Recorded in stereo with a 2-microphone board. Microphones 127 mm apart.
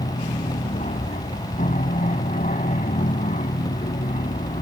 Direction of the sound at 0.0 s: 75° left (ahead or behind).